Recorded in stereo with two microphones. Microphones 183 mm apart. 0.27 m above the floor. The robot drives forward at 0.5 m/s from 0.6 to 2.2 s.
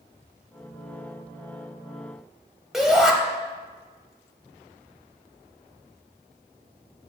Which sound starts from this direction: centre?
A shout, at 2.7 s.